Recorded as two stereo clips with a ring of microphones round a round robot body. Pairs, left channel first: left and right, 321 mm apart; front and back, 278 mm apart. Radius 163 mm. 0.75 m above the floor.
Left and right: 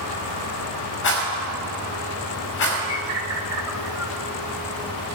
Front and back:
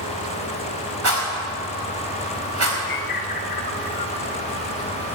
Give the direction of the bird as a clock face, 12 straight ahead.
12 o'clock.